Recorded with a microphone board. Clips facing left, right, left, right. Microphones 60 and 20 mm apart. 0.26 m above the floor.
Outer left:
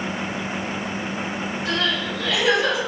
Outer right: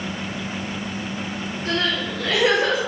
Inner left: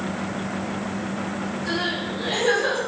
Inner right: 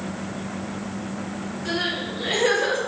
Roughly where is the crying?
Right.